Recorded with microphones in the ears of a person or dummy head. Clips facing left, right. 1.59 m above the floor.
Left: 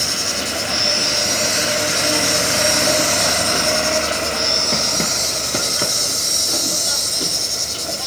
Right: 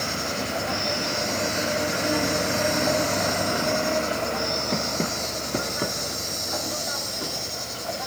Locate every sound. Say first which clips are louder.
0.0 s an insect: left 2 dB; 40° left (ahead or behind), 2.5 m